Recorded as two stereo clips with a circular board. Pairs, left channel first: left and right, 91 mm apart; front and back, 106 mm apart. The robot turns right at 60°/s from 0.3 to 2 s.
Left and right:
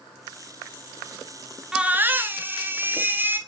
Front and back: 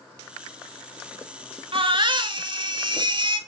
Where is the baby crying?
170° right, 0.7 m; by 3.4 s 150° right, 0.7 m.